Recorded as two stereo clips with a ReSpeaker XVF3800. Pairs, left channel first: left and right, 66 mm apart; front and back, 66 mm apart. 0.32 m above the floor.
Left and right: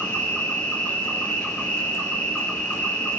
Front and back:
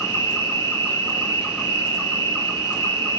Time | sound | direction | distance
0.0 | an insect | 35° left | 1.4 m